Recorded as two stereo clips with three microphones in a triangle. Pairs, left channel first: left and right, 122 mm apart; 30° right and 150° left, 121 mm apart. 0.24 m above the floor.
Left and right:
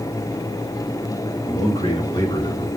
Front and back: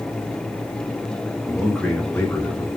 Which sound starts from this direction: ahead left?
A man speaking, at 1.4 s.